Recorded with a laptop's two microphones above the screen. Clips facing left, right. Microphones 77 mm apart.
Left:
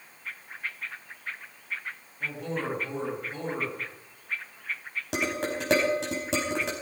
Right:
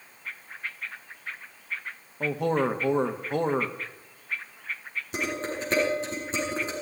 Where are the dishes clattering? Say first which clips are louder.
Left 2 dB; 90° left, 4.5 m.